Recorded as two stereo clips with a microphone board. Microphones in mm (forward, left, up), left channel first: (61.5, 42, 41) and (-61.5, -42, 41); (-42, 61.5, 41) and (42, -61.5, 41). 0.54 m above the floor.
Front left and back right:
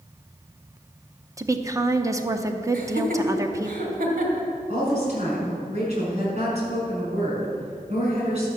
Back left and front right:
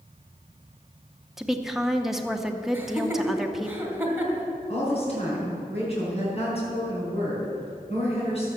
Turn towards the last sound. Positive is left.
turn(degrees=170)